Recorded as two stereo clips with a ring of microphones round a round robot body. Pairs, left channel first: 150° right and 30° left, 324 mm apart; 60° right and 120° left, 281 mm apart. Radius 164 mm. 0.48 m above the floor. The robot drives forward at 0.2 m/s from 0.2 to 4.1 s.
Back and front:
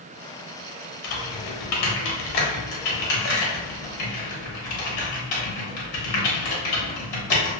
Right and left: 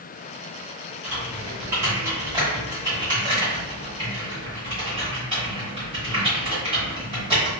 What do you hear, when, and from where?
1.0 s typing on a keyboard: 155° right, 0.7 m; by 7.6 s 165° right, 1.2 m